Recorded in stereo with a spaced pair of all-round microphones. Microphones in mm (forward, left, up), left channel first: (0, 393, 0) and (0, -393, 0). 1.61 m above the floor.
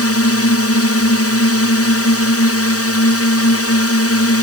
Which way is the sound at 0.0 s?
15° left (ahead or behind).